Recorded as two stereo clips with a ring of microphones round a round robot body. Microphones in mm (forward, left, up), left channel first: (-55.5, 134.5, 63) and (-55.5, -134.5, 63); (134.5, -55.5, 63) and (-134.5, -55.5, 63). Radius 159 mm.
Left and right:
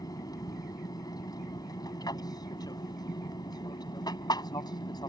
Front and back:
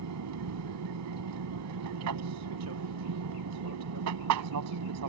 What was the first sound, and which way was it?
An aircraft, 165° left.